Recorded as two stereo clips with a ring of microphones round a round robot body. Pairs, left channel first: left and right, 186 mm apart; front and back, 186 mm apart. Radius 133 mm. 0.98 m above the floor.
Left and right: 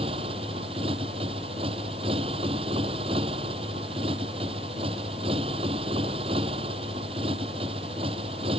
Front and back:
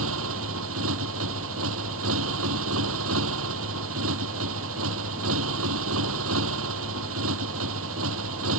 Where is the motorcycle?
160° right.